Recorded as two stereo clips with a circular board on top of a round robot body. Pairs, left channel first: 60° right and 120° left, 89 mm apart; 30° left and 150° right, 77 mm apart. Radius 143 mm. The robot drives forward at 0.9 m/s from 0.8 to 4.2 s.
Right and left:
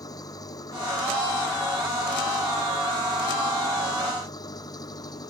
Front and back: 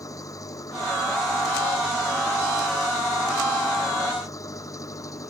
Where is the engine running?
15° right.